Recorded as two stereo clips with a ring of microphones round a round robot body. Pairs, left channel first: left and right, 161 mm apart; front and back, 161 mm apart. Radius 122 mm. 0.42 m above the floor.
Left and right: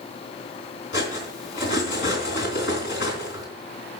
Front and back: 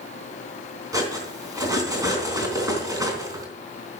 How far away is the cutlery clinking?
About 3 m.